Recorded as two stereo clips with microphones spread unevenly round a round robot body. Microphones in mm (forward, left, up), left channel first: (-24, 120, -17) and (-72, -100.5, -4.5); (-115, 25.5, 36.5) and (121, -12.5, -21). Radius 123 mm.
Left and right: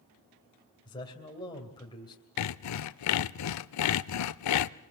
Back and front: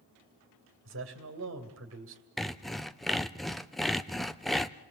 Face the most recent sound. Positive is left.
turn(degrees=80)